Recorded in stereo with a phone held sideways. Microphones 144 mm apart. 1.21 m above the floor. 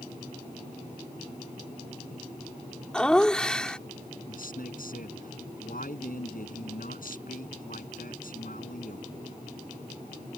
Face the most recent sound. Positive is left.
turn(degrees=70)  # may be behind; listen again after turning